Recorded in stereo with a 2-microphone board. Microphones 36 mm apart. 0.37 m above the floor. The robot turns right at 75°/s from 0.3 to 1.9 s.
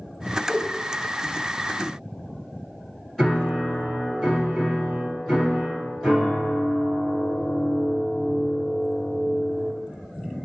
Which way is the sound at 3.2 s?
5° left (ahead or behind).